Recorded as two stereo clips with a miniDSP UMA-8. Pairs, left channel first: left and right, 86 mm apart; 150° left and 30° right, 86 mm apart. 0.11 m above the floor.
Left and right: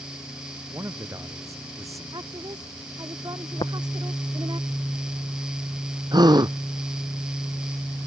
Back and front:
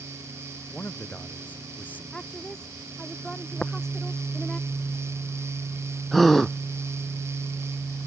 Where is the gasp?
120° right.